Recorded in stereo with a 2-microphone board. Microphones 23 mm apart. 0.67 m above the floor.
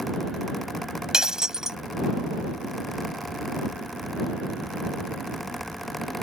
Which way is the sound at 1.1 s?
25° right (ahead or behind).